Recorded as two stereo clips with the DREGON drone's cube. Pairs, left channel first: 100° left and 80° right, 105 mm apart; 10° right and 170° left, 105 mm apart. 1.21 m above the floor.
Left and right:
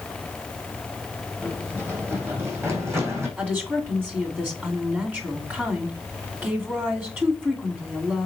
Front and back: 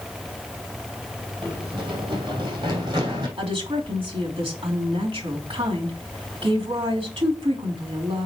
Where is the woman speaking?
150° right, 2.5 m.